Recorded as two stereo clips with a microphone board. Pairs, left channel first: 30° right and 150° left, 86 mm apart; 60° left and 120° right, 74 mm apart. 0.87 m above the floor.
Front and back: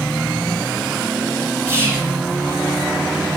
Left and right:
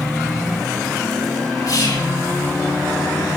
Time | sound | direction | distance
1.7 | whispering | 95° left | 5.5 m